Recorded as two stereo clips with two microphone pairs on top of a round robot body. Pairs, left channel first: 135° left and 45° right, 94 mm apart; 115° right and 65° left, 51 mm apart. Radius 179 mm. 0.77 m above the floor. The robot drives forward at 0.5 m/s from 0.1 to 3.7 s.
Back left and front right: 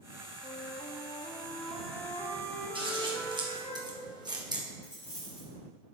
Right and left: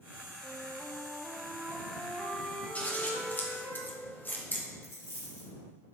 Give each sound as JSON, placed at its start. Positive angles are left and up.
{"t": 0.4, "sound": "a flute", "azimuth_deg": 150, "distance_m": 0.5}
{"t": 2.8, "sound": "scissors", "azimuth_deg": -55, "distance_m": 1.7}
{"t": 4.8, "sound": "a dropped coin", "azimuth_deg": -165, "distance_m": 1.4}